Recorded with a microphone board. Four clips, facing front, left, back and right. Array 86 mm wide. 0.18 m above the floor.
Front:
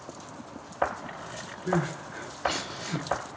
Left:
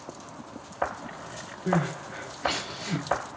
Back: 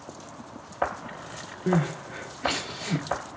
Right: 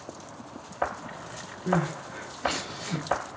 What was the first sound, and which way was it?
Crying, 165° left.